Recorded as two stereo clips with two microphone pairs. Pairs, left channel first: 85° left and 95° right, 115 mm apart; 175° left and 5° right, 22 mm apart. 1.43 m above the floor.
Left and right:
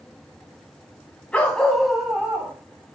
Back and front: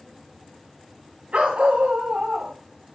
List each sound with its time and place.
1.3 s a dog barking: 5° left, 3 m; by 2.5 s 25° right, 2.5 m